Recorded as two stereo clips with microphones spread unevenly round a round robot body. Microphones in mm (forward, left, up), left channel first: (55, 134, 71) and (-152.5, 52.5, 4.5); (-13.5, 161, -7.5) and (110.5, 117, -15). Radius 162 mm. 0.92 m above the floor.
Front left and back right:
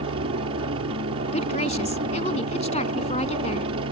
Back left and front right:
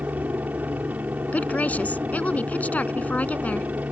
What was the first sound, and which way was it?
A helicopter, 100° right.